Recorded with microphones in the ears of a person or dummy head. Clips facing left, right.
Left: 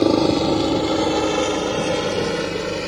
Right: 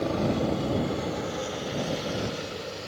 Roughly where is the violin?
No violin in this recording.